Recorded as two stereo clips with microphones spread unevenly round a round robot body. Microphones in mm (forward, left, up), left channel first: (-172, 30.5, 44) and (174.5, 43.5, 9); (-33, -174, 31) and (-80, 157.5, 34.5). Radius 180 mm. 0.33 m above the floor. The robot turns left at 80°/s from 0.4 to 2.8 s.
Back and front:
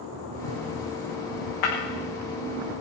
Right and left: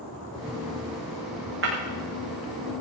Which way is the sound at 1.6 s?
150° left.